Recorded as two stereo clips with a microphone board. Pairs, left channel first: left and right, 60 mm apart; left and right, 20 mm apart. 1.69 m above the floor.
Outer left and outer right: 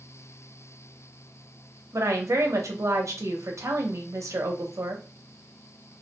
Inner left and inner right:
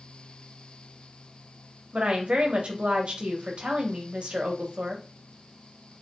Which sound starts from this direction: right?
A woman speaking, at 1.9 s.